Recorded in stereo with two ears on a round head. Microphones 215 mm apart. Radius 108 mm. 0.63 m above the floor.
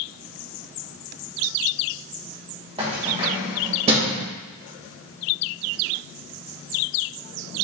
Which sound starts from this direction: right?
Keys jangling, at 2.8 s.